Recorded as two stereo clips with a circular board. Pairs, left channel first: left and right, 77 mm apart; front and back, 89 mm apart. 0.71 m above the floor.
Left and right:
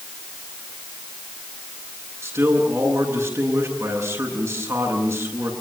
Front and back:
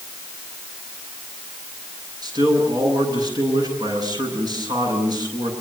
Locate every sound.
2.2 s a man speaking: 140° right, 9 m